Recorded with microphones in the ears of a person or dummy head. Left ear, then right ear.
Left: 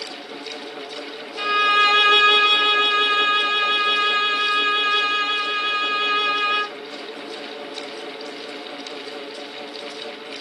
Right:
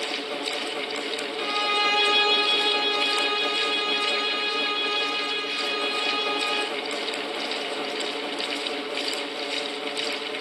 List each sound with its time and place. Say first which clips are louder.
1.4 s a violin: left 8 dB; 20° left (ahead or behind), 1.0 m